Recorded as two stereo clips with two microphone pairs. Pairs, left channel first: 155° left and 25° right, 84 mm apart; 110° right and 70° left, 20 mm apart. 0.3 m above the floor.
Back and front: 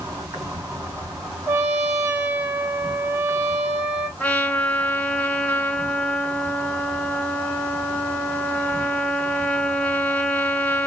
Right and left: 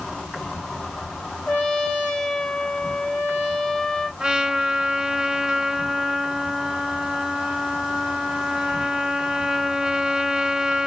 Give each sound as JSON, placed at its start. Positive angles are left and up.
{"t": 0.0, "sound": "an insect", "azimuth_deg": -70, "distance_m": 2.5}
{"t": 1.5, "sound": "a trumpet", "azimuth_deg": -85, "distance_m": 1.9}
{"t": 4.2, "sound": "a trumpet", "azimuth_deg": 95, "distance_m": 1.4}